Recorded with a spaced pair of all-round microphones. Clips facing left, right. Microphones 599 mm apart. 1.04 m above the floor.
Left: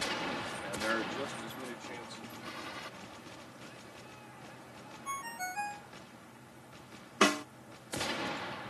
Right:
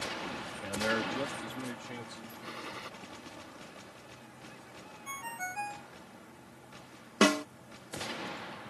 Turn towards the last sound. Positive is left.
turn(degrees=-60)  # may be behind; listen again after turning